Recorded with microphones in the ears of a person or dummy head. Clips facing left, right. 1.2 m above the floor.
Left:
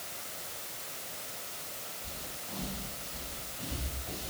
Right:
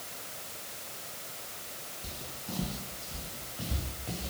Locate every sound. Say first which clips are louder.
2.0 s footsteps: right 5 dB; 50° right (ahead or behind), 3.5 m; by 4.3 s 65° right (ahead or behind), 6 m